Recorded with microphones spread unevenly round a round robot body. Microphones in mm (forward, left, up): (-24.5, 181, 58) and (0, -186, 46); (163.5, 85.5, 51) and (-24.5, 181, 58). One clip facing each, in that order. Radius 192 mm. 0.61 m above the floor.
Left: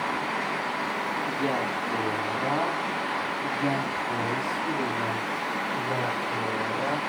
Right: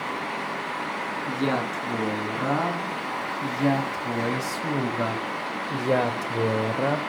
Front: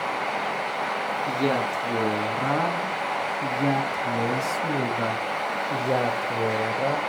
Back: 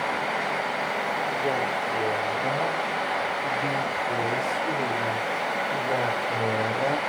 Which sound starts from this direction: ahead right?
A man speaking, at 1.3 s.